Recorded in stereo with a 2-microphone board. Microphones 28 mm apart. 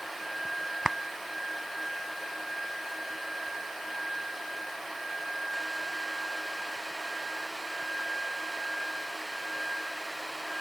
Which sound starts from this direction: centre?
A clap, at 0.8 s.